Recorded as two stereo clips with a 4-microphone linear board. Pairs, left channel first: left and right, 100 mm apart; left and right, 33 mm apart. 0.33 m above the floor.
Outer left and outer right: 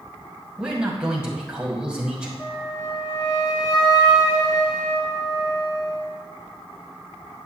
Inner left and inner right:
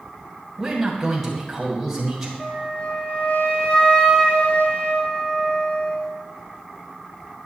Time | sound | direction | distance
0.6 | a man speaking | 10° right (ahead or behind) | 1.9 m
2.4 | a flute | 40° left (ahead or behind) | 2.5 m